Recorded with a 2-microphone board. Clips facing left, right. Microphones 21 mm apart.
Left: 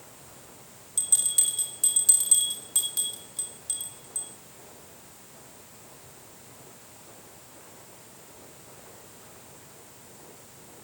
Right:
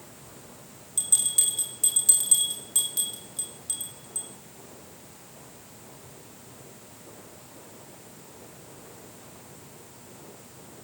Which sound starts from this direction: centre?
A bell, at 1.0 s.